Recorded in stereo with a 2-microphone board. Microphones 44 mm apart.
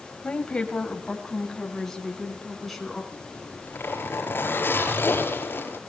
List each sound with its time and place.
0.2 s a woman speaking: 30° left (ahead or behind), 2.0 m; by 3.0 s centre (ahead or behind), 4.5 m
3.1 s a zipper: 50° left (ahead or behind), 5 m